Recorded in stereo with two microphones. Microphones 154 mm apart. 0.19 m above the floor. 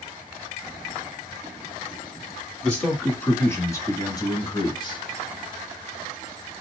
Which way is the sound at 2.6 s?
5° left (ahead or behind).